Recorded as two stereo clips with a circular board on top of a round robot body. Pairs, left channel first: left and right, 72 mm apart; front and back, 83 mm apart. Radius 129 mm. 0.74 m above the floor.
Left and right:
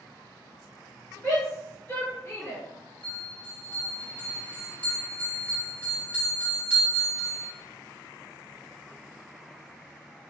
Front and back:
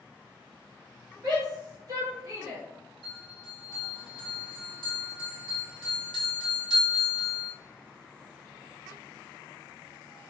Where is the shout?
165° left, 1.8 m; by 2.6 s 145° left, 1.3 m.